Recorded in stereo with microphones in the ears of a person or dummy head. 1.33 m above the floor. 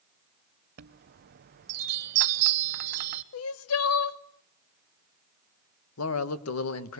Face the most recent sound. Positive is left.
turn(degrees=80)